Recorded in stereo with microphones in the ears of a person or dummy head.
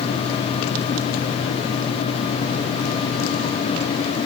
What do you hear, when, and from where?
Only background noise.